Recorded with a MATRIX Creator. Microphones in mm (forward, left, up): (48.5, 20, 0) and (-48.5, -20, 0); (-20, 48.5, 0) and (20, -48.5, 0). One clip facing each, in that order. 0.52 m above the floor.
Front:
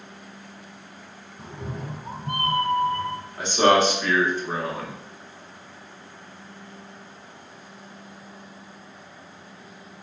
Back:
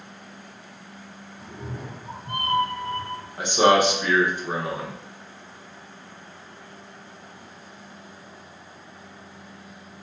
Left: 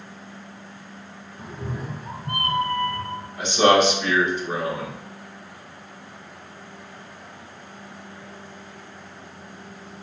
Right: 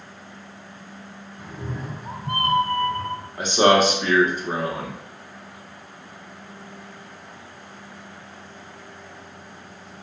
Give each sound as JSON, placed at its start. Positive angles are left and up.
{"t": 1.4, "sound": "a cat meowing", "azimuth_deg": 55, "distance_m": 0.7}
{"t": 3.4, "sound": "a man speaking", "azimuth_deg": -90, "distance_m": 1.1}